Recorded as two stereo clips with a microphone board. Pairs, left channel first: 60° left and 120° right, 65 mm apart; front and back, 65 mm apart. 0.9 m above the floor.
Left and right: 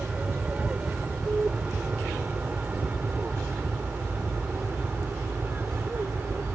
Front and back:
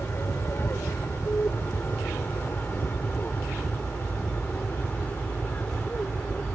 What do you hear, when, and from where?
0.0 s an aircraft: 50° right; by 6.6 s 65° right